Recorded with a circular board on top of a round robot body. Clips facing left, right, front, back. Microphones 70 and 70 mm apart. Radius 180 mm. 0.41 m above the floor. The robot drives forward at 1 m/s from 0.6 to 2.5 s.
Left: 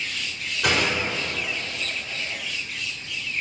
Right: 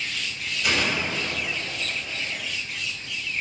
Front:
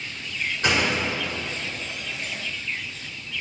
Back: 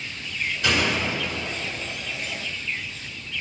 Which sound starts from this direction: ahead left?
A door slam, at 0.6 s.